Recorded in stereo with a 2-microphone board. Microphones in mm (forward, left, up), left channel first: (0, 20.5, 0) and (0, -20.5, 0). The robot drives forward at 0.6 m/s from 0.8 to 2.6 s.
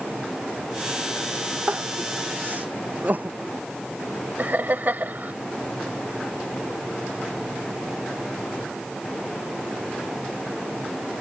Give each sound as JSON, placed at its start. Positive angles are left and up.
{"t": 1.7, "sound": "crying", "side_deg": -45}
{"t": 4.4, "sound": "laughter", "side_deg": -50}